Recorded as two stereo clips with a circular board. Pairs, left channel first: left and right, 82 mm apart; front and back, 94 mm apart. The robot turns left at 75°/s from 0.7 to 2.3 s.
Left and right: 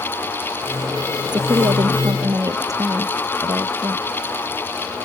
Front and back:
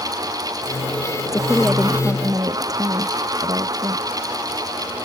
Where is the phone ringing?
I don't hear a phone ringing.